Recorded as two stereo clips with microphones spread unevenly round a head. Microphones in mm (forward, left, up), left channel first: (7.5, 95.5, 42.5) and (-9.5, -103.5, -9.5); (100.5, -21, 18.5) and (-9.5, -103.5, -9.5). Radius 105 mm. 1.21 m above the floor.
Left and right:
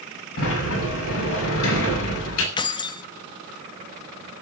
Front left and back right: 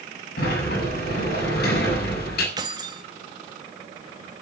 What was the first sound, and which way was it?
A sliding door, 65° left.